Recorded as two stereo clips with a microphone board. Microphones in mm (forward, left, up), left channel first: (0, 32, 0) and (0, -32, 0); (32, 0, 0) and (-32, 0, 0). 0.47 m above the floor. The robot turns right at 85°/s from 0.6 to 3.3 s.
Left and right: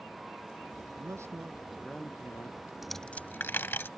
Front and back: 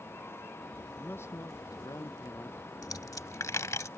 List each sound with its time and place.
0.9 s a man speaking: 70° right; by 2.6 s 70° left
2.8 s a dropped coin: 5° right; by 3.9 s 35° left